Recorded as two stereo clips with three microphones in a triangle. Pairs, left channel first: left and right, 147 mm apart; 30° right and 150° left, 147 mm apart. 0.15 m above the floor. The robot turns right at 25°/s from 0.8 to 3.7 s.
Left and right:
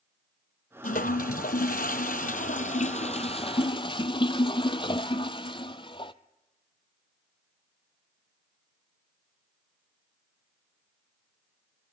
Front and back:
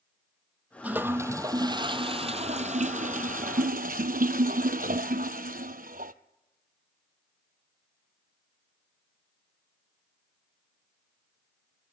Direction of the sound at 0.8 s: 70° left.